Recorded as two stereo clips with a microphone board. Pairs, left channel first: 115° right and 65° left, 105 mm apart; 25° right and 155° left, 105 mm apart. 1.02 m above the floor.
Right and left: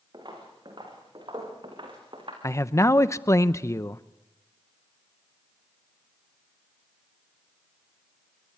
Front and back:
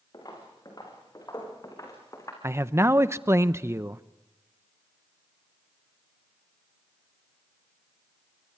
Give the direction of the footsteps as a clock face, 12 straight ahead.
11 o'clock.